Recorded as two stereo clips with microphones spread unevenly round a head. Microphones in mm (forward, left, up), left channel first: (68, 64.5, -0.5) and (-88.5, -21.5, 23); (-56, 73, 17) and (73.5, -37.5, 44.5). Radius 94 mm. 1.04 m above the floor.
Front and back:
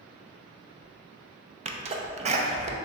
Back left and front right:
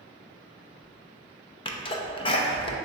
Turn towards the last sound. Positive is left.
turn(degrees=165)